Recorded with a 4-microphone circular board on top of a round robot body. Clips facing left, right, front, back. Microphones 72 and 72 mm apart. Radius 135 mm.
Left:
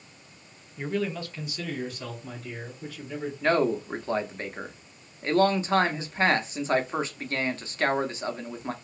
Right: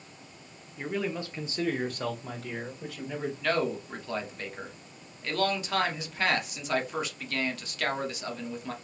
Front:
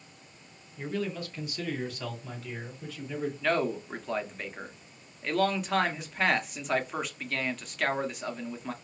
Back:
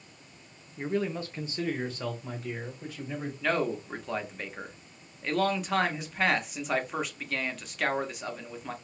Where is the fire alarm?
No fire alarm in this recording.